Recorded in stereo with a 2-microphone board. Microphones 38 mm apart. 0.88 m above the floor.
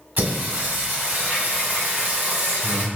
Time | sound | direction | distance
0.2 | singing | 65° right (ahead or behind) | 1.9 m